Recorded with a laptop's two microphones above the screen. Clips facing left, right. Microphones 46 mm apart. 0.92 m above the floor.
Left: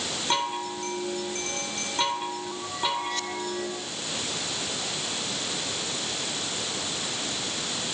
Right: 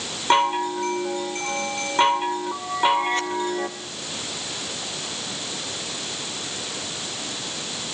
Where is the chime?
35° right (ahead or behind), 1.8 m.